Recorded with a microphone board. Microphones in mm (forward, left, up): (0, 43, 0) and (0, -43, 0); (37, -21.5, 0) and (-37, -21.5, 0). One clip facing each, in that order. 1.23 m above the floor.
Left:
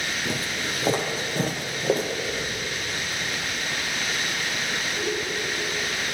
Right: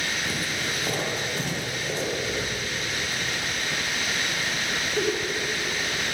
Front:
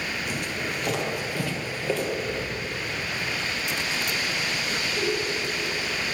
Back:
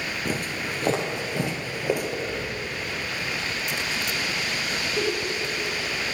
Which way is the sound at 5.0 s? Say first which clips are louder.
Right 4 dB, back 1 dB; 120° right.